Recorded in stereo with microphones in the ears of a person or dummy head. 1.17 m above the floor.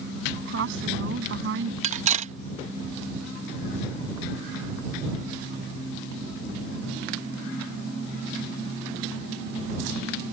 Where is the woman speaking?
70° right (ahead or behind).